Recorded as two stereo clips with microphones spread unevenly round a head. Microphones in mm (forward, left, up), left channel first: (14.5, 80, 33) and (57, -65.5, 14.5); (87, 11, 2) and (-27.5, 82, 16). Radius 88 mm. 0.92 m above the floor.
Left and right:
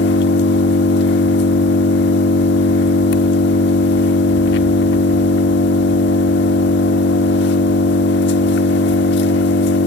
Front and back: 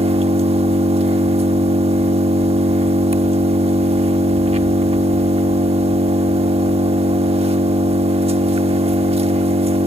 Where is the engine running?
105° left, 1.5 m.